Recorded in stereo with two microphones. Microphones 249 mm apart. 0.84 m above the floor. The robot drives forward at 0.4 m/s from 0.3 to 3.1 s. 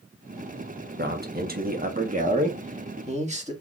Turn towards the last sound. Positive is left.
turn(degrees=-30)  # may be behind; listen again after turning